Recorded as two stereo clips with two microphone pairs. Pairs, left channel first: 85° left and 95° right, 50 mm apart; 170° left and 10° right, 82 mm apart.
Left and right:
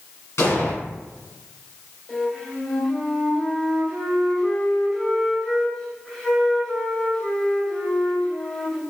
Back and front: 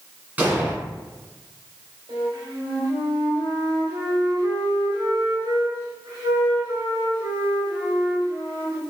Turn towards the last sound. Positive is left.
turn(degrees=10)